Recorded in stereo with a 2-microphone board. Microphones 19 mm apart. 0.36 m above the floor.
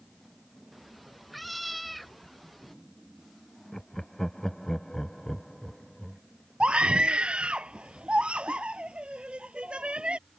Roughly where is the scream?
Right.